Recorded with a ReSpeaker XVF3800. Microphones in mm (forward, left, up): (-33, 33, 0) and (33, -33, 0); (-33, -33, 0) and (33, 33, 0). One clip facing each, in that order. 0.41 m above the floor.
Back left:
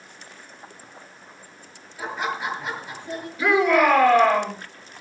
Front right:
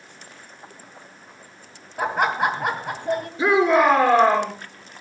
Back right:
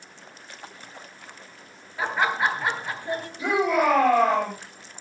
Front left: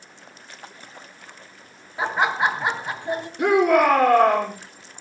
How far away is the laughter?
About 3 m.